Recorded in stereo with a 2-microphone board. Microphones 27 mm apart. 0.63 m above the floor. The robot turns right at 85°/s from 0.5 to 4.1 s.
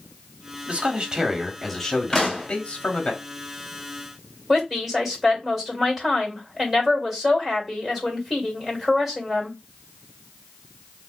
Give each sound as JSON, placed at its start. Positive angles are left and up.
{"t": 0.7, "sound": "a man speaking", "azimuth_deg": -75, "distance_m": 0.9}
{"t": 2.1, "sound": "a pop", "azimuth_deg": 165, "distance_m": 2.0}
{"t": 4.5, "sound": "a woman speaking", "side_deg": -5, "distance_m": 1.8}